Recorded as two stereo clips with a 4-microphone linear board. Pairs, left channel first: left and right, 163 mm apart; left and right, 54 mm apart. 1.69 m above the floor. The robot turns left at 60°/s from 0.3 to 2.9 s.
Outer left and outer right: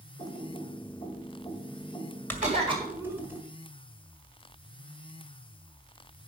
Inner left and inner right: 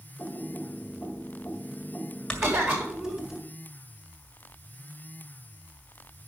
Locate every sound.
0.2 s typing on a keyboard: 25° left (ahead or behind), 1.8 m; by 3.4 s 10° right (ahead or behind), 1.8 m
2.4 s a cough: 50° right (ahead or behind), 3.5 m; by 3.2 s 20° right (ahead or behind), 3.5 m